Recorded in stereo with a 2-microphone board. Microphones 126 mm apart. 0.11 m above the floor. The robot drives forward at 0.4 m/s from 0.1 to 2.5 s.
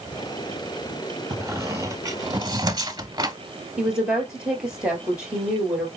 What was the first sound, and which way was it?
A squeak, 20° right (ahead or behind).